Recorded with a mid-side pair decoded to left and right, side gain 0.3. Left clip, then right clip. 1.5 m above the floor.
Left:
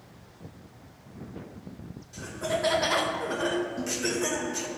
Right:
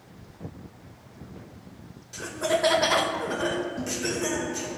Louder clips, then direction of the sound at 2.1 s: Right 4 dB; 65° right.